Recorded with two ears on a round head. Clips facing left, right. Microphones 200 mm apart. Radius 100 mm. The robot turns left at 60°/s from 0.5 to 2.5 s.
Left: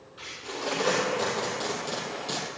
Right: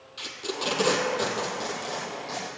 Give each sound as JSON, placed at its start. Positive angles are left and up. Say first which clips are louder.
{"t": 0.2, "sound": "tape being pulled", "louder": "right 3 dB", "side_deg": -60, "distance_m": 2.0}